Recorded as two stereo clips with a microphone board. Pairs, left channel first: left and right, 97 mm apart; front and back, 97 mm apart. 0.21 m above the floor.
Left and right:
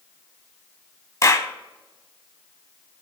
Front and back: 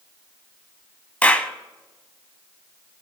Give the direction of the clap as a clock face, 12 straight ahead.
10 o'clock.